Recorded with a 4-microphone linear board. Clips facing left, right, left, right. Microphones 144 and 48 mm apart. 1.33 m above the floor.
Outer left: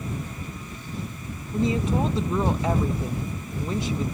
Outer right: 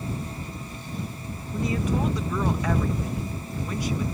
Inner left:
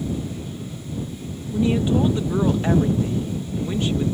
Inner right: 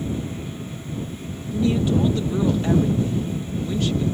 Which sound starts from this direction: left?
A woman speaking, at 1.5 s.